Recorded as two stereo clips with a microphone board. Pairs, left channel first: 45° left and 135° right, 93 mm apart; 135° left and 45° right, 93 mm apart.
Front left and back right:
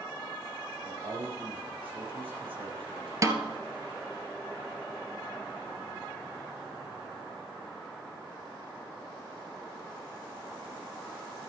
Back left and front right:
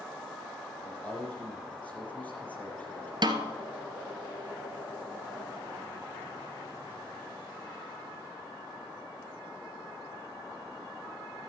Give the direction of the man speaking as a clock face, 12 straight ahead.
5 o'clock.